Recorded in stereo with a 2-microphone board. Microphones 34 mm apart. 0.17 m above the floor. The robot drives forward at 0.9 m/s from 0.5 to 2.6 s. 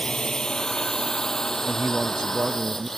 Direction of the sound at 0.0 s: 20° left (ahead or behind).